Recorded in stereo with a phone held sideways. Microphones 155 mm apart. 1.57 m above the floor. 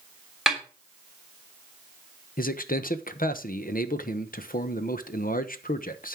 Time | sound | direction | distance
0.5 | a snare drum | centre (ahead or behind) | 3 m
2.4 | a man speaking | 65° left (ahead or behind) | 0.9 m